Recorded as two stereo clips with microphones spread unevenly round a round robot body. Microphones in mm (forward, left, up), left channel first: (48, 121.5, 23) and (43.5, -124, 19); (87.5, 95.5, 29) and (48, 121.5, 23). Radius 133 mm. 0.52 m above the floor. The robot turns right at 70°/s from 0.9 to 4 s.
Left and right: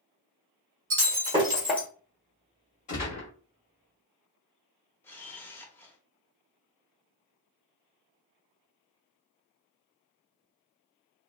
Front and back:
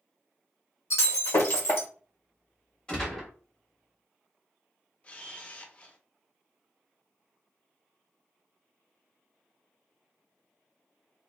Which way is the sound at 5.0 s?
15° left.